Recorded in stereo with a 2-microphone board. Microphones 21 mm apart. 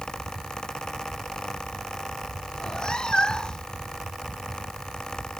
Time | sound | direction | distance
2.5 | a cat meowing | 30° left (ahead or behind) | ?